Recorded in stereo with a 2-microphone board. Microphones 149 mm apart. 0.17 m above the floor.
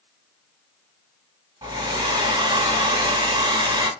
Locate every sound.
1.6 s a hair dryer: 30° right (ahead or behind), 2 m